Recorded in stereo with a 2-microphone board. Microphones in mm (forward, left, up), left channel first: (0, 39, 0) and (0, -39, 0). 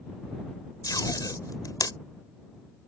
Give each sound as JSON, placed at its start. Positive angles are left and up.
{"t": 0.8, "sound": "tape being pulled", "side_deg": 50}